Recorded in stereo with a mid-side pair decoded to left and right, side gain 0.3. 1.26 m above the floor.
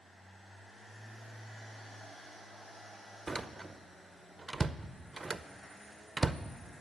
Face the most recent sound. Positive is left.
turn(degrees=-30)